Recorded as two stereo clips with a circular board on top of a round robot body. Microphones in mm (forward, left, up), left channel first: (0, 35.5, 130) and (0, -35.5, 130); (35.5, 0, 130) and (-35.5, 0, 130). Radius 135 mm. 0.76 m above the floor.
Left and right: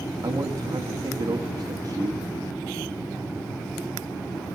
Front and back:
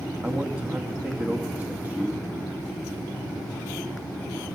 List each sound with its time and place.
0.2 s a man speaking: 110° right, 2.0 m